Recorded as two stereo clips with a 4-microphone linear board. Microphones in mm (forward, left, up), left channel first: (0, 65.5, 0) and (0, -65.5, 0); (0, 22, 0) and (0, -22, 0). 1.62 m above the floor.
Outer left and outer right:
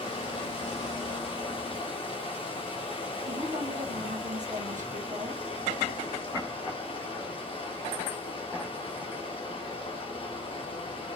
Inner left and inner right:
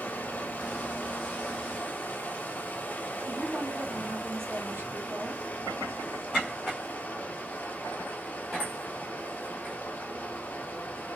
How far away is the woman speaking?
About 1.2 m.